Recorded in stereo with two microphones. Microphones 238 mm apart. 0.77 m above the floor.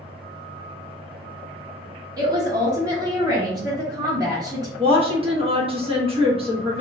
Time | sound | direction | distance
2.2 | a woman speaking | 15° right (ahead or behind) | 0.8 m
4.8 | a woman speaking | 25° right (ahead or behind) | 0.8 m